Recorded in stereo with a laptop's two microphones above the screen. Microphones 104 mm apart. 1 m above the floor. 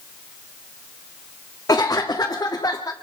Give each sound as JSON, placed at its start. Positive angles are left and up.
{"t": 1.7, "sound": "a cough", "side_deg": 30, "distance_m": 2.5}